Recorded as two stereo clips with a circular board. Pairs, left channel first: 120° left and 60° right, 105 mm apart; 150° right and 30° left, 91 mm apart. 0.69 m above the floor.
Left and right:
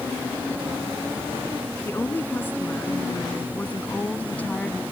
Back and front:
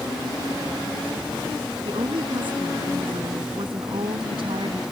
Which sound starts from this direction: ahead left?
A woman speaking, at 1.9 s.